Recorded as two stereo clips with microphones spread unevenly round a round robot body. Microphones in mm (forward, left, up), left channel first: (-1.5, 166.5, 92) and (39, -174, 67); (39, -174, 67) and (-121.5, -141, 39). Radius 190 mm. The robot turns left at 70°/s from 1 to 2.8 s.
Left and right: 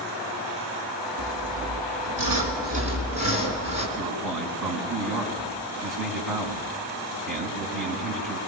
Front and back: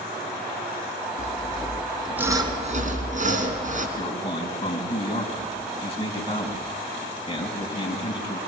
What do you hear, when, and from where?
1.2 s sawing: 40° right, 3.5 m; by 3.9 s 155° right, 3.5 m
4.0 s a man speaking: 75° right, 5 m